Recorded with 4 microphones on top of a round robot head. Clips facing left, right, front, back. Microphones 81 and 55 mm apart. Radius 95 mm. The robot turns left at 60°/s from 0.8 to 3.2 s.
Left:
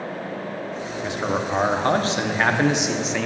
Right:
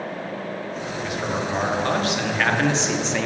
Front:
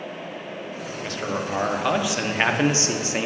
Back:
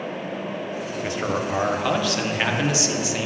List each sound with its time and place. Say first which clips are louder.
1.0 s a man speaking: left 2 dB, back 2 dB; 130° left, 0.7 m; by 3.3 s straight ahead, 0.7 m